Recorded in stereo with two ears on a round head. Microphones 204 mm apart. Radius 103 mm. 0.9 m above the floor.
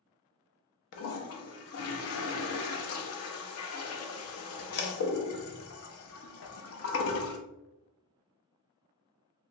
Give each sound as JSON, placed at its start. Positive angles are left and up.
{"t": 0.9, "sound": "a toilet flushing", "side_deg": 65, "distance_m": 0.6}